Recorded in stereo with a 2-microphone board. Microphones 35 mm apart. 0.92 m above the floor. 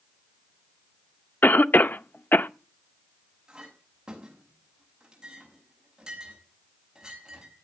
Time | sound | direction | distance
1.4 | a cough | 60° left (ahead or behind) | 0.7 m
3.5 | a clink | 20° right (ahead or behind) | 5.5 m